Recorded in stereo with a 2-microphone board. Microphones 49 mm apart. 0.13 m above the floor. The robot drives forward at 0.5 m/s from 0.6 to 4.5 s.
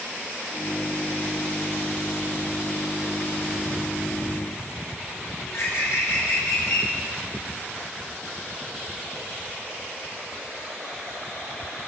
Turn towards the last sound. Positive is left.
turn(degrees=75)  # may be behind; listen again after turning